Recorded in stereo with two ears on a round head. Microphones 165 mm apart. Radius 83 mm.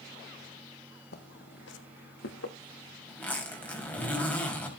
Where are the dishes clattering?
I don't hear dishes clattering.